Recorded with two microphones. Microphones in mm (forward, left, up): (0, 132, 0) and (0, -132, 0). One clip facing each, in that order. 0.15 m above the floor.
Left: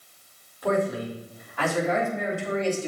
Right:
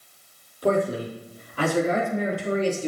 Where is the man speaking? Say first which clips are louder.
Right 2 dB; 35° right (ahead or behind), 4.5 m.